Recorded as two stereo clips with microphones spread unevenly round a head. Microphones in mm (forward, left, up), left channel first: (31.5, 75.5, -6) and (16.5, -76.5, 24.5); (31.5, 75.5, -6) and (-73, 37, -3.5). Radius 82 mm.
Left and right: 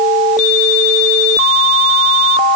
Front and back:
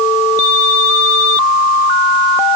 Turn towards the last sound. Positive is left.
No sound to turn to.